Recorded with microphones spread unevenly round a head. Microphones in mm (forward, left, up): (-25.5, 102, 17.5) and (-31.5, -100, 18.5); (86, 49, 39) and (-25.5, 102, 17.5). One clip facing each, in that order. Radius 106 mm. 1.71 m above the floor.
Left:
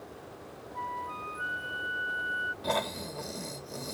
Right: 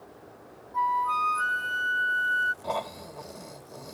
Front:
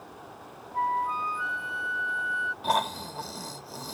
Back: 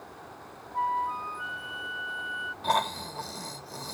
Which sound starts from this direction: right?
A flute, at 0.7 s.